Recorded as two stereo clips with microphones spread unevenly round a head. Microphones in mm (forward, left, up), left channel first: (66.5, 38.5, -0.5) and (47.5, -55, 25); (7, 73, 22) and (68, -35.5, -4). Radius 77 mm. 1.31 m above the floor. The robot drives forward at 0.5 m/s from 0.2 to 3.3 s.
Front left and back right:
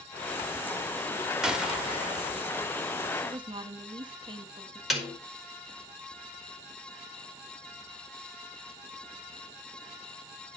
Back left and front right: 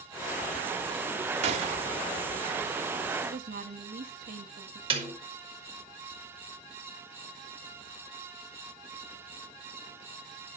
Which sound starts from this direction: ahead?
A snare drum, at 4.9 s.